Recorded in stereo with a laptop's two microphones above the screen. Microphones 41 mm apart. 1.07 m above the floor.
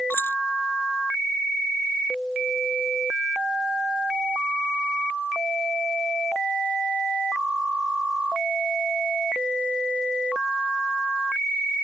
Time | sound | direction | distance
0.1 | keys jangling | 65° left (ahead or behind) | ?